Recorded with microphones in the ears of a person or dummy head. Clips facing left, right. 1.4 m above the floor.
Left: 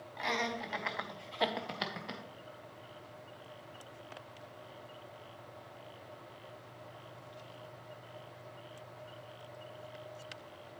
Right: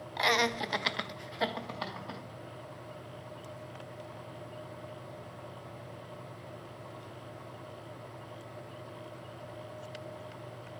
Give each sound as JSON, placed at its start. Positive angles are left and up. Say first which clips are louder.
{"t": 0.2, "sound": "laughter", "louder": "right 6 dB", "side_deg": -70, "distance_m": 0.8}